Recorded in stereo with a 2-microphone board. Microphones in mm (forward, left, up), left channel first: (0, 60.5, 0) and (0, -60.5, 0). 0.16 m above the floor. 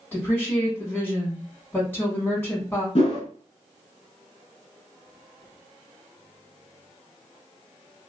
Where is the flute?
No flute in this recording.